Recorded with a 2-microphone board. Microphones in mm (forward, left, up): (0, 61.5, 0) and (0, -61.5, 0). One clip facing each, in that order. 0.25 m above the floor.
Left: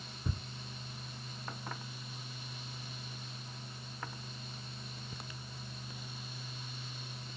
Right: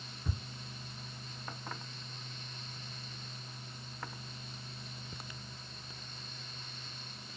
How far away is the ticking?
About 1.6 m.